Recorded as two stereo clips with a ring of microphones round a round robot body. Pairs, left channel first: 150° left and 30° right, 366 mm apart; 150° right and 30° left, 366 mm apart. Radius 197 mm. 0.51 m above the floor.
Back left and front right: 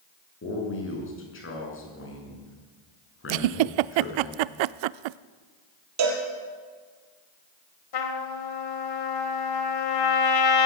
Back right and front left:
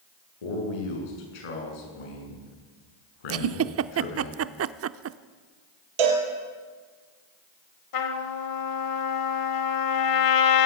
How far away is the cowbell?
About 5 m.